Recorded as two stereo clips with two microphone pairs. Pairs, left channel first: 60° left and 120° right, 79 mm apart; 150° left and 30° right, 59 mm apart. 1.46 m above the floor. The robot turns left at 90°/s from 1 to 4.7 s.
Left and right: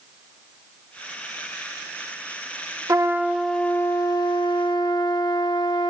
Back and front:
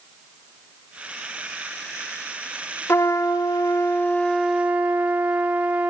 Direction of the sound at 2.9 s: 160° right.